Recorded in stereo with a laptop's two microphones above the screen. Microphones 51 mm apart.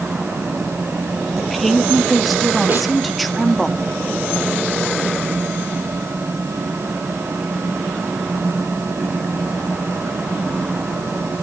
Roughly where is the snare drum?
Right.